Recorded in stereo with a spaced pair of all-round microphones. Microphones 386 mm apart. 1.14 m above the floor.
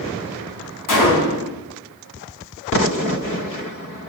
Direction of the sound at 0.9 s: 60° left (ahead or behind).